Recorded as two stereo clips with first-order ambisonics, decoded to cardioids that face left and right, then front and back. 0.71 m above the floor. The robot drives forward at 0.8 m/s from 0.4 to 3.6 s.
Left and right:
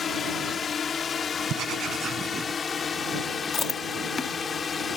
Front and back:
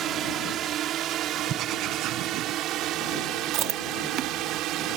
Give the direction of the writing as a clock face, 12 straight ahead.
4 o'clock.